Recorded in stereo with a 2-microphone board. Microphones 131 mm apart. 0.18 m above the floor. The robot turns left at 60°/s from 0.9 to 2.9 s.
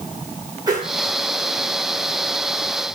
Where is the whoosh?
30° right (ahead or behind), 6 m; by 0.9 s 25° right (ahead or behind), 6 m.